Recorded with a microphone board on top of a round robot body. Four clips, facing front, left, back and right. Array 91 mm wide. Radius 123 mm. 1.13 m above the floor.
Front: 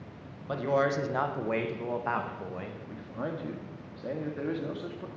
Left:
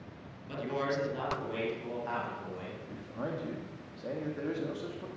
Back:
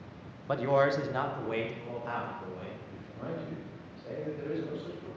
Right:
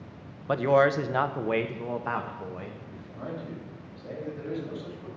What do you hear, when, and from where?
0.5 s a man speaking: 95° right, 0.9 m; by 2.8 s 40° right, 1.6 m
2.9 s a man speaking: 20° left, 1.9 m